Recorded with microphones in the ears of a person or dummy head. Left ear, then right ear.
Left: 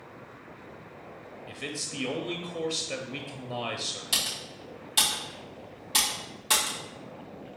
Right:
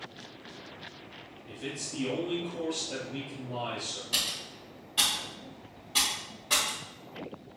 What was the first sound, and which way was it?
A man speaking, 40° left (ahead or behind).